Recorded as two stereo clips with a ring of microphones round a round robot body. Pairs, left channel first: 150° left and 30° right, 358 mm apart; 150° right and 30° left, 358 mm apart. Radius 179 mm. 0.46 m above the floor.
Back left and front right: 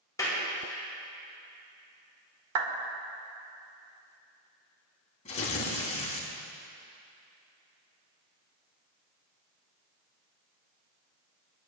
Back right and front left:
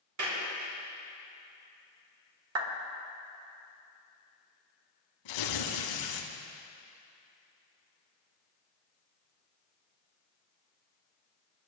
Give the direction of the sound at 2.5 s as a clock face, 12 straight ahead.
12 o'clock.